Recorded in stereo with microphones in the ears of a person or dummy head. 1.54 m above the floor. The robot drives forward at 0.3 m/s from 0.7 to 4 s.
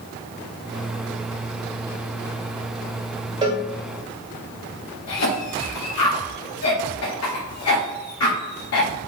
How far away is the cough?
About 1.1 m.